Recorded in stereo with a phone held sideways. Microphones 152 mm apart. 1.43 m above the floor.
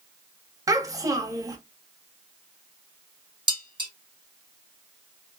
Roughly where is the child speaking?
Right.